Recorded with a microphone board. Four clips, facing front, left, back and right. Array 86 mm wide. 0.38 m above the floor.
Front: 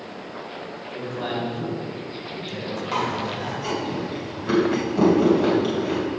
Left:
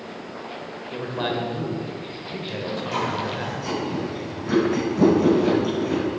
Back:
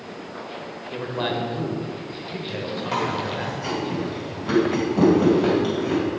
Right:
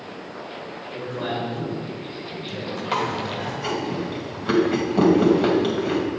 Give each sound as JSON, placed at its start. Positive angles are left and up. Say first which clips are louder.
{"t": 0.9, "sound": "a man speaking", "louder": "left 2 dB, back 2 dB", "azimuth_deg": 140, "distance_m": 1.1}
{"t": 2.9, "sound": "chewing", "louder": "right 2 dB, even", "azimuth_deg": -90, "distance_m": 2.0}